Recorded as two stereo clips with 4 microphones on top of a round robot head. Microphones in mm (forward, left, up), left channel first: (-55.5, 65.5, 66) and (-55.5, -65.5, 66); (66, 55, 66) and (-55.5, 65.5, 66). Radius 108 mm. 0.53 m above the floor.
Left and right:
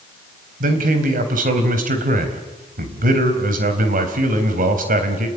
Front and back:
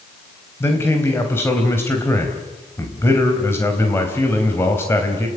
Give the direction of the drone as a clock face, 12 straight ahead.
I don't hear a drone.